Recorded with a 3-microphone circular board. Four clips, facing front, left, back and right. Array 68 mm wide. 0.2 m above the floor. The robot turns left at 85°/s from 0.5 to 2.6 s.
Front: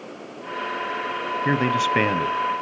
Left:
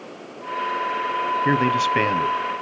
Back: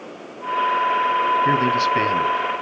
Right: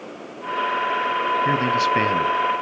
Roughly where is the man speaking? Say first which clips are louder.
Even, back 3 dB; ahead left.